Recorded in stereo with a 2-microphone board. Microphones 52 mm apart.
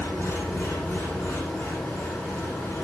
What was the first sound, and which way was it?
An engine running, 60° left (ahead or behind).